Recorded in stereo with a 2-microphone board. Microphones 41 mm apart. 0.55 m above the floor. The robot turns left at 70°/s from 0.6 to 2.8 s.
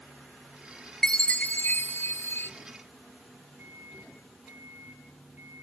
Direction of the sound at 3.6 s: 50° right (ahead or behind).